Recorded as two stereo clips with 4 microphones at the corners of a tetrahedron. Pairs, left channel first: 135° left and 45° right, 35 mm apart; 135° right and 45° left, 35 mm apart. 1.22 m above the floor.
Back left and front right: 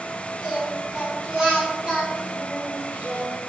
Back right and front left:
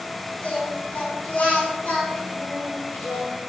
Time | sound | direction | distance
0.4 | singing | 95° right | 3.5 m